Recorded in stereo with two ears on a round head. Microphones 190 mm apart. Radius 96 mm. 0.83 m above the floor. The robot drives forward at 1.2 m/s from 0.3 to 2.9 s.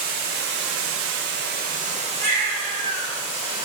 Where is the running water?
45° right (ahead or behind), 1.2 m; by 3.6 s 20° right (ahead or behind), 2.5 m.